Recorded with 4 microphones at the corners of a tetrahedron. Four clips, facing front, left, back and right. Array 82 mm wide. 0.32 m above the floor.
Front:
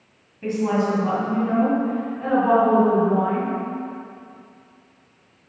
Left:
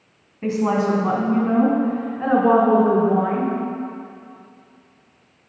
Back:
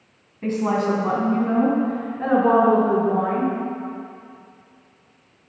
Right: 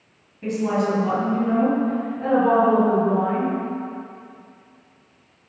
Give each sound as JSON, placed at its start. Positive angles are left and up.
{"t": 0.4, "sound": "a woman speaking", "azimuth_deg": 120, "distance_m": 3.0}